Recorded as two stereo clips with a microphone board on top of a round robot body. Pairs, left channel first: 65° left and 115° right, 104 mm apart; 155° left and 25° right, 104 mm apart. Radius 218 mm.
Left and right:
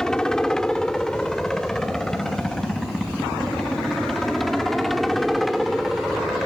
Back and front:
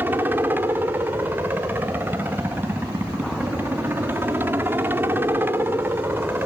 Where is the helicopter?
5° right; by 6.5 s 20° right.